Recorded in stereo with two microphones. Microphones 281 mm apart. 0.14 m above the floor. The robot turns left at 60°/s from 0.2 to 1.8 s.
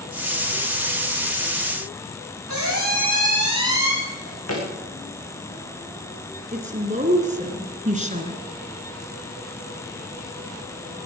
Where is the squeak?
75° left (ahead or behind), 4.5 m.